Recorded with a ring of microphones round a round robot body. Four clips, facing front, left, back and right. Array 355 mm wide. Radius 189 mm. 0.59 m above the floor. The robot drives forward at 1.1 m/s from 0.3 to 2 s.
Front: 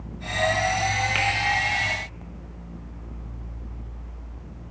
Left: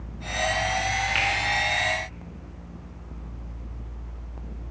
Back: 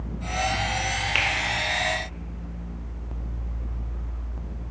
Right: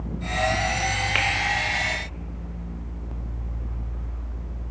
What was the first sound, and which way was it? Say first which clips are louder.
A finger snap: right 1 dB, front 2 dB; 105° right.